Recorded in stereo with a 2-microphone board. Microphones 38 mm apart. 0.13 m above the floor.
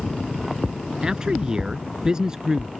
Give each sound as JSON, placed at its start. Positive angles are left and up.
{"t": 1.0, "sound": "a man speaking", "side_deg": -20}